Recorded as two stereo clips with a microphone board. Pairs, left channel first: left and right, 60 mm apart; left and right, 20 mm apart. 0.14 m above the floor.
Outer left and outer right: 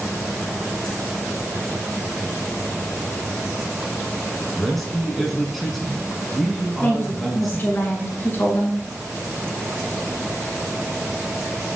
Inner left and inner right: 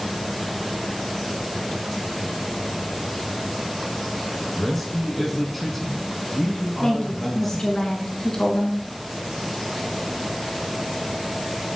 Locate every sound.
4.6 s a man speaking: centre (ahead or behind), 1.1 m
6.8 s a woman speaking: 35° left (ahead or behind), 1.2 m